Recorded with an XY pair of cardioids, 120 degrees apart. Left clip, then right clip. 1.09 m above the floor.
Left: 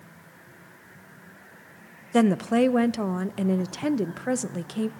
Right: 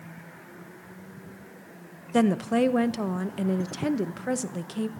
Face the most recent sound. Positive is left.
turn(degrees=15)